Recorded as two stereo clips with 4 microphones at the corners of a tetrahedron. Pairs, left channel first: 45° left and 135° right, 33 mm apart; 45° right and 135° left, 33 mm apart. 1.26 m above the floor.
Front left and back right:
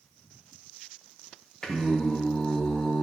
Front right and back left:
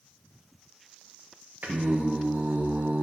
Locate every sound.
1.6 s singing: 110° left, 1.0 m